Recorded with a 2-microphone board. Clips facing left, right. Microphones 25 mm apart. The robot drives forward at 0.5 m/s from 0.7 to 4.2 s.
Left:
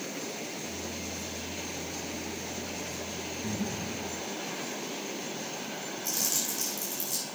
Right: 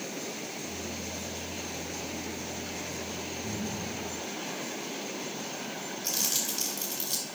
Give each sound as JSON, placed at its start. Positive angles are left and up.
{"t": 3.4, "sound": "breathing", "side_deg": 80, "distance_m": 1.5}
{"t": 6.0, "sound": "crumpling", "side_deg": -70, "distance_m": 3.0}